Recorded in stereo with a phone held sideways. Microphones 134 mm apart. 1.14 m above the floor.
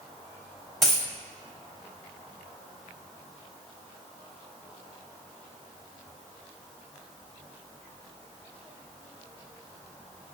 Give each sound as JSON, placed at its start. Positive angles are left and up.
{"t": 0.8, "sound": "a dropped coin", "side_deg": 0, "distance_m": 1.0}